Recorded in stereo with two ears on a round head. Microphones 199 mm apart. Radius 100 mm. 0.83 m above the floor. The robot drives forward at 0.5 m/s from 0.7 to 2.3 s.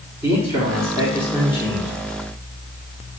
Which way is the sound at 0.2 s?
15° right (ahead or behind).